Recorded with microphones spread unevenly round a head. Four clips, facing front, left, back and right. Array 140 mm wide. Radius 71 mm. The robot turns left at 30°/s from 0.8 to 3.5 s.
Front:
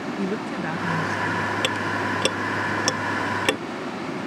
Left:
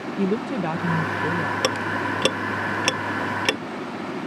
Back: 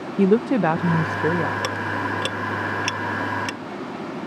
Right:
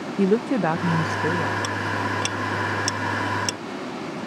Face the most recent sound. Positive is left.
turn(degrees=25)